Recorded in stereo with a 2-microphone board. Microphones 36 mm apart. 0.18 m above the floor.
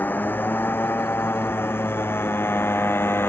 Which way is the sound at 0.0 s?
55° left (ahead or behind).